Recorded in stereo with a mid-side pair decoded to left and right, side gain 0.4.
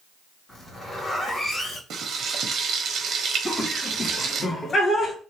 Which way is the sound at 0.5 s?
45° left.